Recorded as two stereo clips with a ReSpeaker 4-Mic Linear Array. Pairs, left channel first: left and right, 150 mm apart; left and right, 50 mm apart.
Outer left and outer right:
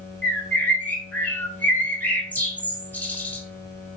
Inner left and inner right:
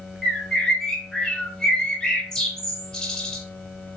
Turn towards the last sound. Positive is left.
turn(degrees=10)  # may be behind; listen again after turning